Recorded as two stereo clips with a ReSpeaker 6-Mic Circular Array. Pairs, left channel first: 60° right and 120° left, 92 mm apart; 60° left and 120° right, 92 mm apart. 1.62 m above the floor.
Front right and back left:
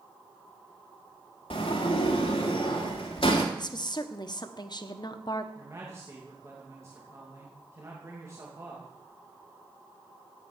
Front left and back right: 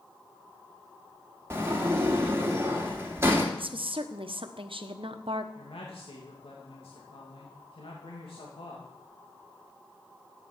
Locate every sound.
1.5 s a sliding door: 55° right, 2.5 m
3.6 s a woman speaking: 100° right, 1.2 m
5.5 s a man speaking: 60° left, 2.5 m